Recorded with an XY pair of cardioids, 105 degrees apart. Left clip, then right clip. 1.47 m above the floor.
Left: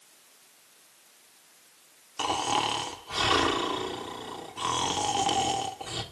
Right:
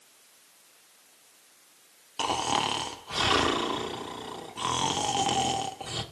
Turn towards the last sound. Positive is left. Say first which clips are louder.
# even
turn(degrees=-15)